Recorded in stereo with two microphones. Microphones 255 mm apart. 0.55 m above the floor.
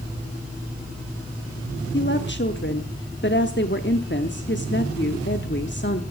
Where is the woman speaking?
45° left (ahead or behind), 1.0 m.